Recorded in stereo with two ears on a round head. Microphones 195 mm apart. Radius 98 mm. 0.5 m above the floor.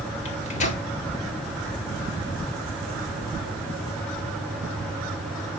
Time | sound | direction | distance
0.2 | a microwave | 35° left (ahead or behind) | 1.5 m